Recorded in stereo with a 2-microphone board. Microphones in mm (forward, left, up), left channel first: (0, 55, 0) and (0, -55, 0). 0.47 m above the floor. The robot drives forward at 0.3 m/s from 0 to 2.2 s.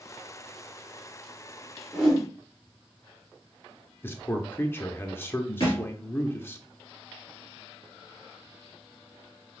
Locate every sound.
1.9 s a whoosh: 10° left (ahead or behind), 1.6 m; by 2.2 s 5° left (ahead or behind), 1.7 m
4.0 s a man speaking: 20° left (ahead or behind), 0.8 m
5.6 s a thud: 45° left (ahead or behind), 2.5 m